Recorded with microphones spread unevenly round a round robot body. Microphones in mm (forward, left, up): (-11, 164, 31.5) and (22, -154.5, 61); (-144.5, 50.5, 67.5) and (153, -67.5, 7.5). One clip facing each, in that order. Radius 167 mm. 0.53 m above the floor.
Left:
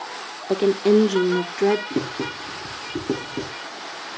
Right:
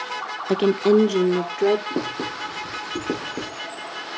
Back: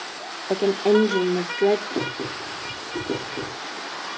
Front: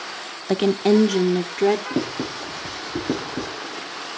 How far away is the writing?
About 9.5 m.